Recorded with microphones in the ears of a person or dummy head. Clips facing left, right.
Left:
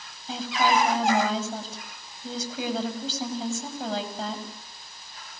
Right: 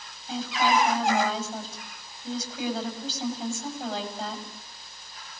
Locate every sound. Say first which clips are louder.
0.3 s a woman speaking: left 1 dB; 75° left (ahead or behind), 9 m